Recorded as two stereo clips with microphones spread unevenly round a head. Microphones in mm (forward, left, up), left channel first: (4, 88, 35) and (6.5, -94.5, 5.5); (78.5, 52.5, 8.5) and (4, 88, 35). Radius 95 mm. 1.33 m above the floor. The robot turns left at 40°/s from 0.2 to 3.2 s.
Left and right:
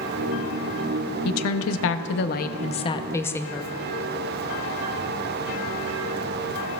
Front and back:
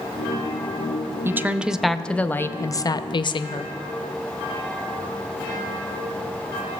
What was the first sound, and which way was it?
A woman speaking, 90° left.